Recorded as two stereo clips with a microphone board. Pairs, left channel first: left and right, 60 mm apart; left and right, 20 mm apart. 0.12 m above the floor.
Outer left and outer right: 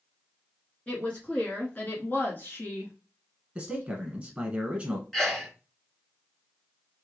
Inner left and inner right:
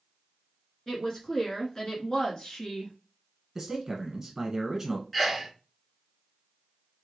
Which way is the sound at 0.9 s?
20° left (ahead or behind).